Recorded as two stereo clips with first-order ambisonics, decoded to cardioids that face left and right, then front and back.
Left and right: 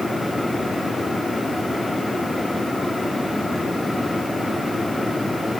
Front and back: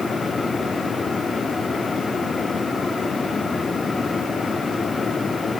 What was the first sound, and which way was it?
Only background noise.